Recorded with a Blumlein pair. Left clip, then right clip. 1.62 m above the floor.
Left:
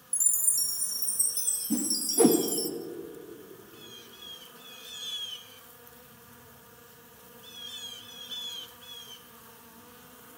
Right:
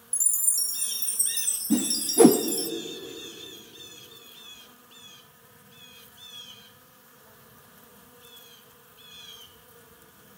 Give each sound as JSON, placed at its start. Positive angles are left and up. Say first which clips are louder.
{"t": 0.1, "sound": "a chime", "louder": "right 1 dB", "azimuth_deg": -5, "distance_m": 1.0}
{"t": 1.7, "sound": "a whoosh", "louder": "right 5 dB", "azimuth_deg": -20, "distance_m": 0.5}